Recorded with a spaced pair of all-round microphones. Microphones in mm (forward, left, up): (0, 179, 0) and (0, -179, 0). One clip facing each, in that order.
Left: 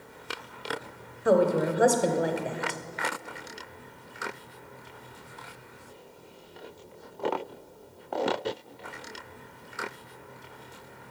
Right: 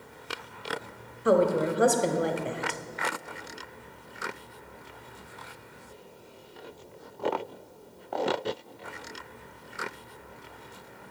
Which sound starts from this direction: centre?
A woman speaking, at 1.2 s.